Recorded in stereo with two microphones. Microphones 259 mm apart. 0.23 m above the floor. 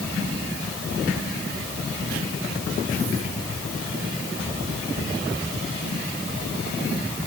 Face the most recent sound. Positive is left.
No sound to turn to.